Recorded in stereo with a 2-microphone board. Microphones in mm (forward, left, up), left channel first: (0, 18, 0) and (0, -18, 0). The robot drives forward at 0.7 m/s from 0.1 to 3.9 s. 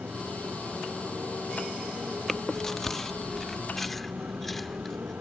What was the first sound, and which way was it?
A motorcycle, 50° right (ahead or behind).